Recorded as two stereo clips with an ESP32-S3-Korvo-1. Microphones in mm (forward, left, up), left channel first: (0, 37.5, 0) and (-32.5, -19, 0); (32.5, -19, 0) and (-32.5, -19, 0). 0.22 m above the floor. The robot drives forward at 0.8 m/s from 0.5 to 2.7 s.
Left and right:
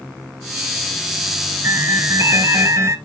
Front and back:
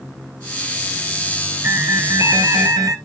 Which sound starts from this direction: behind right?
An alarm, at 1.6 s.